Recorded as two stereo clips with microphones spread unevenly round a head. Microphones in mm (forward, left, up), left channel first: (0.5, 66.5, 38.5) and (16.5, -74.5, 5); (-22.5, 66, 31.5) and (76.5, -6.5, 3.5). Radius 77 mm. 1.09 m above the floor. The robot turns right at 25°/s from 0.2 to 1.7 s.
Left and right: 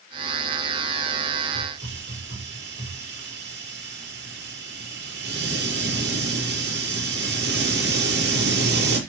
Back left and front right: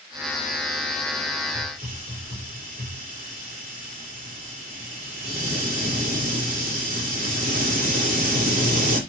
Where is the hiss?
80° right, 6.5 m.